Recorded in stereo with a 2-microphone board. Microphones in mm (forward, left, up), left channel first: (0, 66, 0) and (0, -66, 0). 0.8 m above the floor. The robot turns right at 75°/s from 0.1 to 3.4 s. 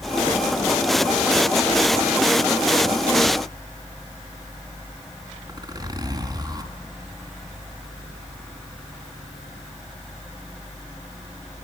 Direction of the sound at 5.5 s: 30° right (ahead or behind).